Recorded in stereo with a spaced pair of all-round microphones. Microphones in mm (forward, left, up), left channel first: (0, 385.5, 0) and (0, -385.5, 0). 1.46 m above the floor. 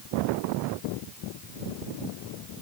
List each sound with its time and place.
Only background noise.